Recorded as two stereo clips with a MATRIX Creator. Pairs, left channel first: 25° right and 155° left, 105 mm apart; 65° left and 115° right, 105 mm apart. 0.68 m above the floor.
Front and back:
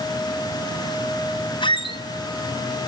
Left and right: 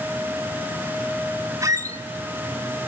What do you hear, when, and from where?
1.6 s a squeak: 55° right, 1.0 m